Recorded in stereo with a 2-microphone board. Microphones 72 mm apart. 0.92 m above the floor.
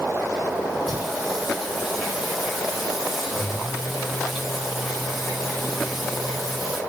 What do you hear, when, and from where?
0.9 s singing: 5° right (ahead or behind), 5 m